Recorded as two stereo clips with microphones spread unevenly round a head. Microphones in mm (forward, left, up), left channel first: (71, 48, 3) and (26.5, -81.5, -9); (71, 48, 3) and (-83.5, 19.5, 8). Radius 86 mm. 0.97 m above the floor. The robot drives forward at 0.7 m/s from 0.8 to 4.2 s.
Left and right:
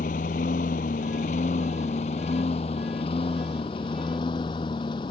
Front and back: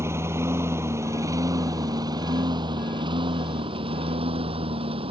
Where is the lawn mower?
115° left; by 5.1 s 135° left.